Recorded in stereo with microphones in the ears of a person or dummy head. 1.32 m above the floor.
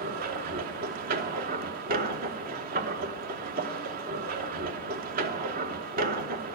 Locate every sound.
0.0 s a machine running: 50° right (ahead or behind), 0.9 m